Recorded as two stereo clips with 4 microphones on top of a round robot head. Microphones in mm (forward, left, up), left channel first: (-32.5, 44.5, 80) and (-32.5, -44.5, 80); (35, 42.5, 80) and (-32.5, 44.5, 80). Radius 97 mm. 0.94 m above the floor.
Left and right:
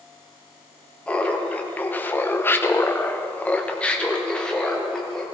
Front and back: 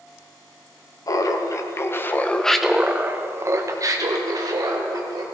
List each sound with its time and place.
1.1 s laughter: 15° left, 1.4 m; by 5.2 s 175° left, 2 m